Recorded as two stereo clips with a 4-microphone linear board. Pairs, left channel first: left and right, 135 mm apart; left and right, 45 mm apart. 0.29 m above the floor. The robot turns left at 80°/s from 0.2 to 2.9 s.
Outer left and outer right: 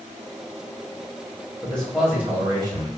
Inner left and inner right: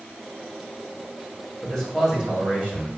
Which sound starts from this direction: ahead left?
A man speaking, at 1.6 s.